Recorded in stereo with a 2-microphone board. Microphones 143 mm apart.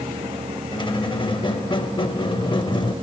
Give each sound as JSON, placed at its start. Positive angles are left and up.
{"t": 0.7, "sound": "a squeak", "side_deg": 30, "distance_m": 0.5}